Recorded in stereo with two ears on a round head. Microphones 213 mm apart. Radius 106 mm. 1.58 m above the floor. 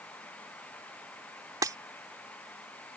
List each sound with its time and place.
1.6 s breaking glass: 15° right (ahead or behind)